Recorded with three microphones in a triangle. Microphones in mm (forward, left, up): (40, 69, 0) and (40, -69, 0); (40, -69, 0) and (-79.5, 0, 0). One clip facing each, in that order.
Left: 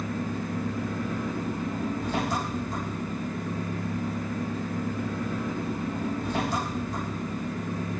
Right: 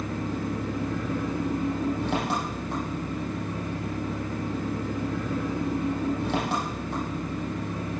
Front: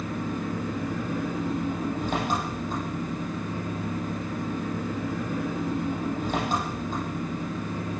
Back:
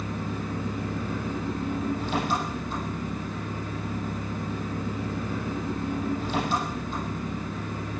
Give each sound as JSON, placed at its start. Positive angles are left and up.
{"t": 0.0, "sound": "an engine running", "azimuth_deg": -75, "distance_m": 8.0}